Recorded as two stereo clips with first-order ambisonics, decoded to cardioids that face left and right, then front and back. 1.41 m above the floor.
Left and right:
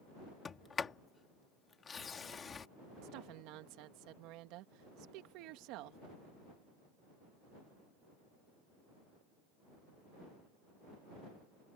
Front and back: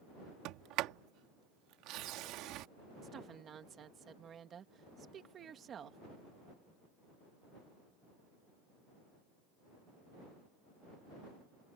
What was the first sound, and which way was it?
A sliding door, 160° left.